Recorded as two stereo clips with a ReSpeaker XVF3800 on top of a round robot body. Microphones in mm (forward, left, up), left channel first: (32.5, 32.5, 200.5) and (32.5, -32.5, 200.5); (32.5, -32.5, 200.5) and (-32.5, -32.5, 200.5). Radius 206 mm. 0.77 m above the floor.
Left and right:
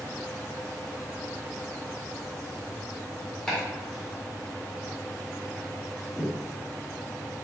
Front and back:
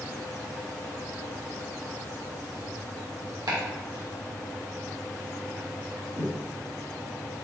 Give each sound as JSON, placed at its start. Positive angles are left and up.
{"t": 3.5, "sound": "chopping", "azimuth_deg": 175, "distance_m": 1.5}